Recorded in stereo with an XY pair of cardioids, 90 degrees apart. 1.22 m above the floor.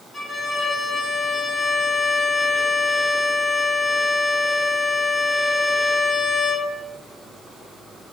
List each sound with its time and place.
0.1 s a violin: 35° left, 1.4 m